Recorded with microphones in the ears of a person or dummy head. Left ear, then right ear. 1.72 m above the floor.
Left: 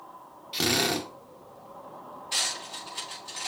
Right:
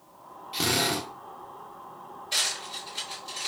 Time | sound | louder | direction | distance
0.5 | a drill | even | 10° left (ahead or behind) | 1.6 m
2.3 | cutlery clinking | right 1 dB | 10° left (ahead or behind) | 5 m